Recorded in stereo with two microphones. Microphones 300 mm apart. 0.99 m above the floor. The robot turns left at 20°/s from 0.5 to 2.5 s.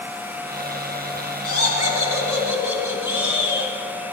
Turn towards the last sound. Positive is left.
turn(degrees=65)  # may be behind; listen again after turning